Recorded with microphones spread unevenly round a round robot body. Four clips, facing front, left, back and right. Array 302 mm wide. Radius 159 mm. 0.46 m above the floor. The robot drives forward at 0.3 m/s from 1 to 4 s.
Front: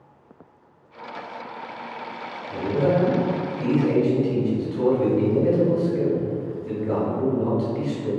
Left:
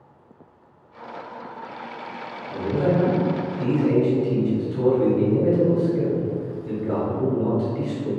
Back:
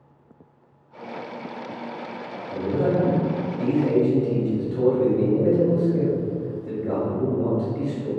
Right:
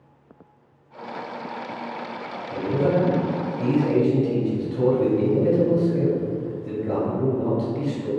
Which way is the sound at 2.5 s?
170° left.